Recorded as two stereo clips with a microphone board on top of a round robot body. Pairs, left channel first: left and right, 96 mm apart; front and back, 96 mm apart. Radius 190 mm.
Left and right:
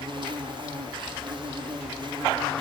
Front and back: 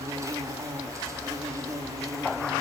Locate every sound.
0.0 s an insect: 125° right, 1.5 m